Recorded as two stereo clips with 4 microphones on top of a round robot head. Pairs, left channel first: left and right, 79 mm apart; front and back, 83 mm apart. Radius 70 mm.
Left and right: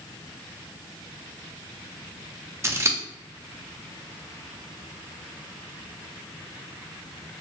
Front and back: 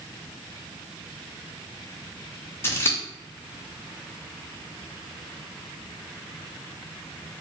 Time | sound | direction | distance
2.6 | scissors | 45° right | 0.7 m